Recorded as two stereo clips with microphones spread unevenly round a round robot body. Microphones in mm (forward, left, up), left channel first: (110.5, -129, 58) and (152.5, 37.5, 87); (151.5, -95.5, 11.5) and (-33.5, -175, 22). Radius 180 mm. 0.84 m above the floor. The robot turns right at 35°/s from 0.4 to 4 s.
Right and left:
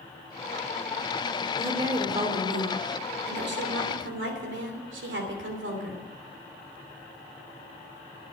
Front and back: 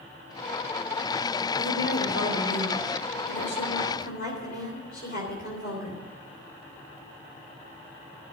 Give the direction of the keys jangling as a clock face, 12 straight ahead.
I don't hear keys jangling.